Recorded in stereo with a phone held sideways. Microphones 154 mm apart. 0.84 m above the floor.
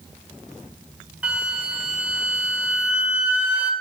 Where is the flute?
10° right (ahead or behind), 1.8 m.